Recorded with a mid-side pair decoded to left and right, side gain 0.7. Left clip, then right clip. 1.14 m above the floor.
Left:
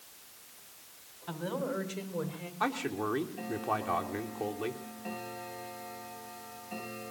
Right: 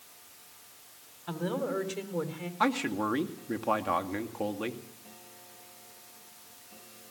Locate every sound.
1.3 s a woman speaking: 20° right, 3 m; by 2.5 s 45° right, 3 m
2.6 s a man speaking: 60° right, 2 m